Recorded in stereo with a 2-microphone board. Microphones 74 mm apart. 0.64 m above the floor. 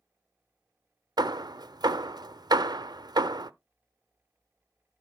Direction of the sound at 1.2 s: 65° right (ahead or behind).